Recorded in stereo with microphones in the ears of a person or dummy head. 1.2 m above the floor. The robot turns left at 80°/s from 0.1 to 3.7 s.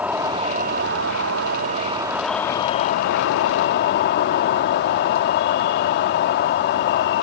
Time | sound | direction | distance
0.0 | an insect | 10° right | ?